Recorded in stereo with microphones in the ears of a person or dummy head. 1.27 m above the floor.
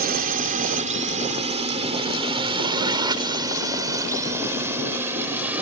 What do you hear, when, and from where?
0.0 s a drone: 45° right (ahead or behind); by 5.6 s 10° right (ahead or behind)